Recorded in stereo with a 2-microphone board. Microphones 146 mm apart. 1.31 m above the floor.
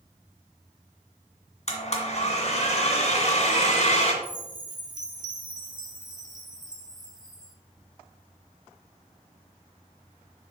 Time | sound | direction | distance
1.7 | a blender | 50° left (ahead or behind) | 1.8 m
4.2 | a chime | 25° right (ahead or behind) | 1.3 m